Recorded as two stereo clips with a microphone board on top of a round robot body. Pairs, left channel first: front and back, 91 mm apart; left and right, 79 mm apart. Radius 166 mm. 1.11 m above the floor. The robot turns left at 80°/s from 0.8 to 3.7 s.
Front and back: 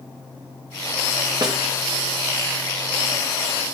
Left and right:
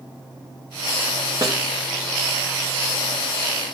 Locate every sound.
1.4 s a snare drum: 130° right, 1.0 m; by 1.6 s 145° right, 1.0 m